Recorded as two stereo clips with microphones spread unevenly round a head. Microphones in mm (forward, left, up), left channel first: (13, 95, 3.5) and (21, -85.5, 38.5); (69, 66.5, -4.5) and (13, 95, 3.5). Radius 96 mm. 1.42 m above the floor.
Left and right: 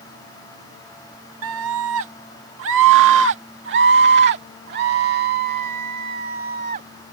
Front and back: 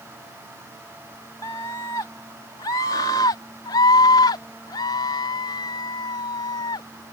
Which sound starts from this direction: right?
A scream, at 1.4 s.